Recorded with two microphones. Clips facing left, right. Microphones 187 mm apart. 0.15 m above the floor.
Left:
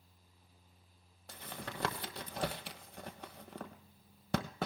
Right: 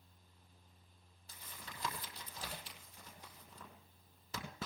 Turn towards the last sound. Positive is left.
turn(degrees=70)  # may be behind; listen again after turning